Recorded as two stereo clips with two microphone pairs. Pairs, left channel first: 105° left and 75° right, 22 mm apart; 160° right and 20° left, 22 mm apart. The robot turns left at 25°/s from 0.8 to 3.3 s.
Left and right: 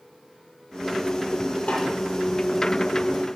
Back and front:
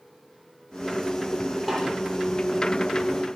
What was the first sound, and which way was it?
A snare drum, 95° left.